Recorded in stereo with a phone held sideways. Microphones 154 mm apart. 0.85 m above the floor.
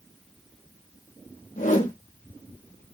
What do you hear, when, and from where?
1.6 s a whoosh: 55° left (ahead or behind), 1.5 m